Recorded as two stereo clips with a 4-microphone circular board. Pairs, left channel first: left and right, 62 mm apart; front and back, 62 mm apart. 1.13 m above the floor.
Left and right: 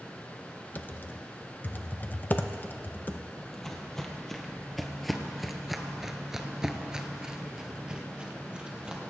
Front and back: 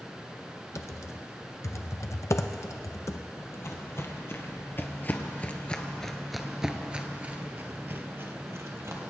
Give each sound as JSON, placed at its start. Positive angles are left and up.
{"t": 0.8, "sound": "typing on a keyboard", "azimuth_deg": 35, "distance_m": 0.6}
{"t": 3.4, "sound": "footsteps", "azimuth_deg": 10, "distance_m": 1.9}